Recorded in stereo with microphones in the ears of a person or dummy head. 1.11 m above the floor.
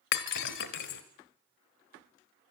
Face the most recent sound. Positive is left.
turn(degrees=65)  # may be behind; listen again after turning